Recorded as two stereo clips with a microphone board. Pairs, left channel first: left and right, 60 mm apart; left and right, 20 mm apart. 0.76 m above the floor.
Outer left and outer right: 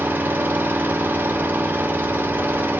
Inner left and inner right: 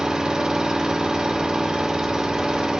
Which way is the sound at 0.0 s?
30° right (ahead or behind).